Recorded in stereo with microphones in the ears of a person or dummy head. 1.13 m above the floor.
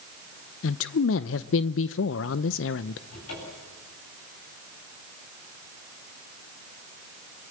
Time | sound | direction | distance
0.6 | a man speaking | 65° left (ahead or behind) | 0.7 m
3.1 | a cupboard door | 85° left | 9.5 m